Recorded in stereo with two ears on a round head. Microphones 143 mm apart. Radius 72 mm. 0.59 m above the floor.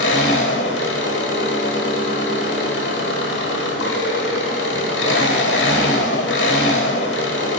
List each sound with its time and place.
0.0 s an engine running: 75° left (ahead or behind), 1.5 m